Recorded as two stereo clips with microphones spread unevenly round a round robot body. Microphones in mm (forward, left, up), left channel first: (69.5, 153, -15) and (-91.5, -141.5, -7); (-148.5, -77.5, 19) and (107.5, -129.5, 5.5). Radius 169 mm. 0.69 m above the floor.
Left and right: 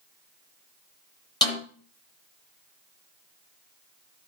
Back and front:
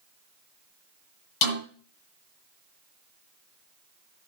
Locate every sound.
1.4 s a snare drum: 140° left, 8 m